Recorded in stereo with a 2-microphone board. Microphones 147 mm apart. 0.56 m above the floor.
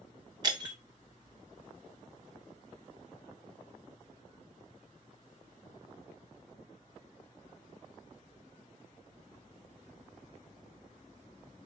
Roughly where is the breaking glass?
Right.